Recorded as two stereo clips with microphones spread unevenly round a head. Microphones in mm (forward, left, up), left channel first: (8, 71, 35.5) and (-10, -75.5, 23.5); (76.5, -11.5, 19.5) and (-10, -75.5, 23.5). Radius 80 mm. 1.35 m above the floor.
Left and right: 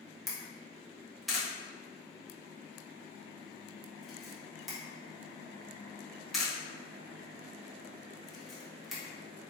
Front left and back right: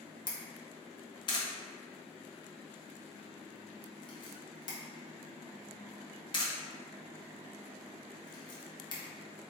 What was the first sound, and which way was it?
A camera shutter, 10° right.